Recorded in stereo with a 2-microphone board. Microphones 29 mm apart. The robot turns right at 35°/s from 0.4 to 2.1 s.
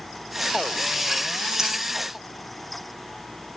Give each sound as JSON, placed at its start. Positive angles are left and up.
{"t": 1.6, "sound": "breathing", "side_deg": -25, "distance_m": 6.5}